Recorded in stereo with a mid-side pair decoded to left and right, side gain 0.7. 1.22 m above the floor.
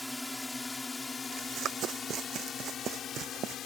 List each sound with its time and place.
0.0 s a drone: 10° left; by 3.7 s 45° left
1.3 s running footsteps: 45° right